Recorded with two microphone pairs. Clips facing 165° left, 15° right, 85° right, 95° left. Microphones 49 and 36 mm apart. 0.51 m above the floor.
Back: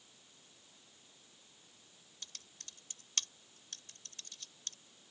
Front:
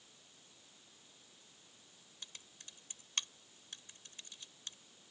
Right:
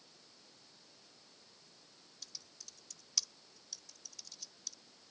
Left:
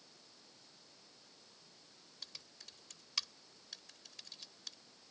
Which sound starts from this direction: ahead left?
Typing on a keyboard, at 2.2 s.